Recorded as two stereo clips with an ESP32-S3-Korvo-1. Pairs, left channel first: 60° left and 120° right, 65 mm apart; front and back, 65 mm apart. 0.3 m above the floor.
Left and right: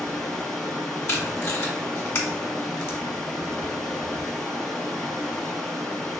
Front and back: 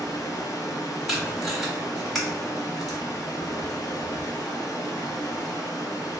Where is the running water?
25° right, 0.8 m.